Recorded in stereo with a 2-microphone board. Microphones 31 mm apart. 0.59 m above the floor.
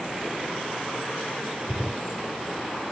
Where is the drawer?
5° right (ahead or behind), 3 m.